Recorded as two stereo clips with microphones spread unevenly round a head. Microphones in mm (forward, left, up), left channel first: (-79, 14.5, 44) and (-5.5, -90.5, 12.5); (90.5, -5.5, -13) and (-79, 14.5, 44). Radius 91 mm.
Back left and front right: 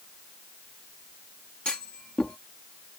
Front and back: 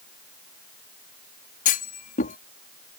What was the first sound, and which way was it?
A clunk, 40° left.